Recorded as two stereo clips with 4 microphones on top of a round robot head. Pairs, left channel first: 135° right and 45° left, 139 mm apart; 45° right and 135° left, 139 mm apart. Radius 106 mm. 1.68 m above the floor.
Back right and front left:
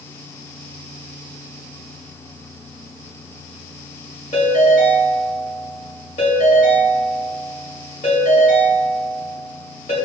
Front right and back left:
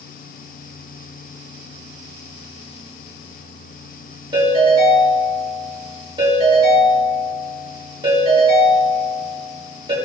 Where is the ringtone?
170° right, 3 m.